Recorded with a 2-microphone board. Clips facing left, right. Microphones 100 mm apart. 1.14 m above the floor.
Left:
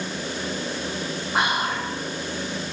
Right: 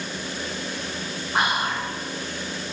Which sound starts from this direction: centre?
Whispering, at 1.3 s.